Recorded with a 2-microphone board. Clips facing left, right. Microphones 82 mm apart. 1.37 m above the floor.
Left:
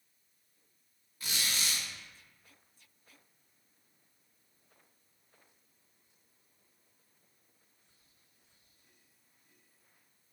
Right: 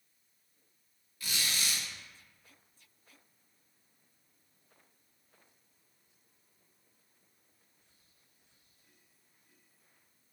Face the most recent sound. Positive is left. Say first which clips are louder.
# even
turn(degrees=25)  # may be behind; listen again after turning